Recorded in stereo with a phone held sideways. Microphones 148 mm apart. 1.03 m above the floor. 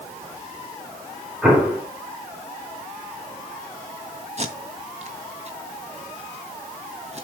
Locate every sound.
1.4 s an explosion: 10° right (ahead or behind), 4.5 m
4.4 s tape being pulled: 45° right (ahead or behind), 2.5 m